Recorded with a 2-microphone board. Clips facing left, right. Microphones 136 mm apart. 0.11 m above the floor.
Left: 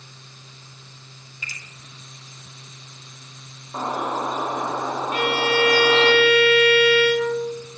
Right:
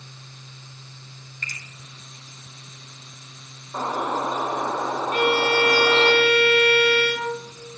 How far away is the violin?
About 1.1 m.